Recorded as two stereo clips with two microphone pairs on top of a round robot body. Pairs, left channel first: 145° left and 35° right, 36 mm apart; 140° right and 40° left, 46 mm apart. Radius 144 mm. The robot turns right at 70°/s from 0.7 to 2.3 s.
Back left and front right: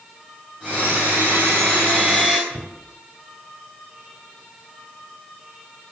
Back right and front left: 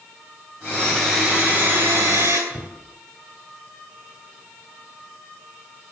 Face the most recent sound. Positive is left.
turn(degrees=-35)